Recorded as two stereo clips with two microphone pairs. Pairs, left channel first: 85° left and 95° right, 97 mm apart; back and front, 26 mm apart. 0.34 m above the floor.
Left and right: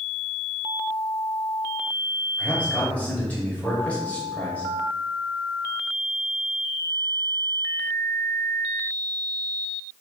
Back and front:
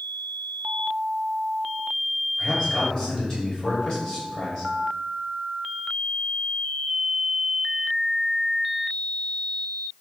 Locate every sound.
2.4 s a man speaking: 145° left, 1.3 m